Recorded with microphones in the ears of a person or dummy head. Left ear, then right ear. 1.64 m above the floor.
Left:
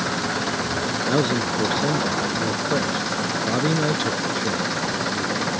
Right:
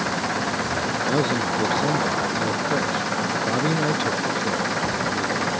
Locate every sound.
0.0 s an engine running: 20° right (ahead or behind)
1.1 s a man speaking: centre (ahead or behind)